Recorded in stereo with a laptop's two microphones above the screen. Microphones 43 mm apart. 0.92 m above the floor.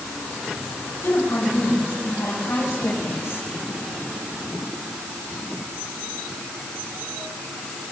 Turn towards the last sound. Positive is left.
turn(degrees=80)